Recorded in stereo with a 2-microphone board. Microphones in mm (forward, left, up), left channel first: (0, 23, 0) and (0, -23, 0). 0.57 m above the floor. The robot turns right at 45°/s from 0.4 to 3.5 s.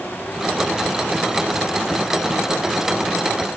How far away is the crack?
No crack in this recording.